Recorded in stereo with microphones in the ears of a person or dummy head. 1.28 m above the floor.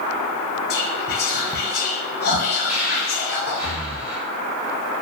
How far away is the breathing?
About 0.7 m.